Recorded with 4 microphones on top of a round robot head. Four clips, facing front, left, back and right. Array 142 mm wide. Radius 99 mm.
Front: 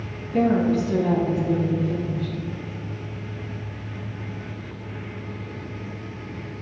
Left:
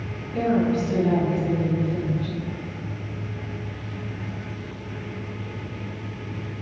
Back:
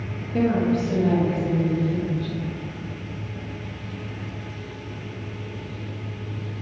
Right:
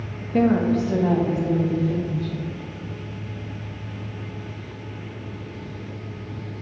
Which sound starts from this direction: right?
A woman speaking, at 0.3 s.